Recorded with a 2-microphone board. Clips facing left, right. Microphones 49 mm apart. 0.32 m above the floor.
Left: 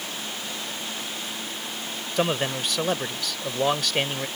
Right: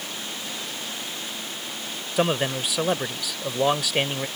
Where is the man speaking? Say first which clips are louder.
Right 2 dB; 5° right (ahead or behind).